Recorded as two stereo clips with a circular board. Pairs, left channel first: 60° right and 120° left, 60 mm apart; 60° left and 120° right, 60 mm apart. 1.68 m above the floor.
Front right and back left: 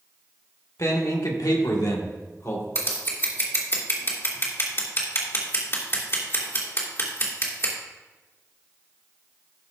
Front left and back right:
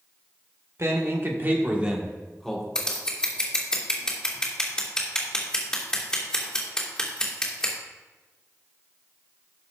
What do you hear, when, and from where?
0.8 s a man speaking: 85° right, 2 m; by 2.6 s 20° right, 2.0 m
2.8 s scissors: 20° right, 2.5 m